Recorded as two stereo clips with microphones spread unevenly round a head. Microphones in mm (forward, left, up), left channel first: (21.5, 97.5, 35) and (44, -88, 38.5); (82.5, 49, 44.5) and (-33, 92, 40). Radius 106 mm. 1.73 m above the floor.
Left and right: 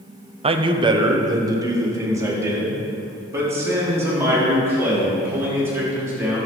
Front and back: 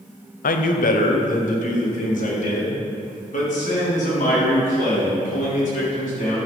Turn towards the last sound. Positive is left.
turn(degrees=-5)